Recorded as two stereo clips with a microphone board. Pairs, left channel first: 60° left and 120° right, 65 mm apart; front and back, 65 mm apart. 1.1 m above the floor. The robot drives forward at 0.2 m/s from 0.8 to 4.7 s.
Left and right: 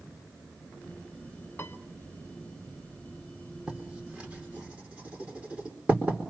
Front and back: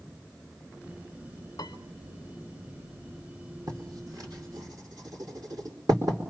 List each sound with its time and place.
1.6 s a piano: straight ahead, 1.0 m
3.7 s writing: 170° left, 4 m